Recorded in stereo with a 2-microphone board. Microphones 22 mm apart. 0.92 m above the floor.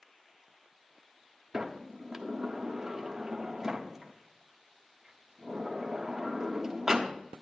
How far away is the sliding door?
About 1.3 m.